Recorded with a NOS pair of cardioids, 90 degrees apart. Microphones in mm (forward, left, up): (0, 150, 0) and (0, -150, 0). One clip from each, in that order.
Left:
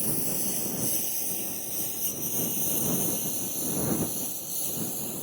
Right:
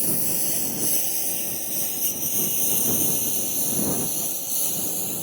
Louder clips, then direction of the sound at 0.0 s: Right 4 dB; 30° right.